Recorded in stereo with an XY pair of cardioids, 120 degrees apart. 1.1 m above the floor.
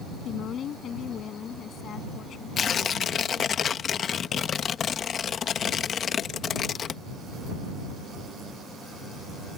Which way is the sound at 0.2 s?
50° left.